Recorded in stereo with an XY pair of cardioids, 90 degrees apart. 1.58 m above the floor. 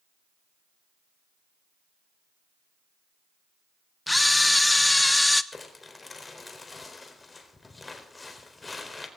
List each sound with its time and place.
4.1 s a camera shutter: 10° left, 1.1 m
5.5 s crumpling: 25° left, 4 m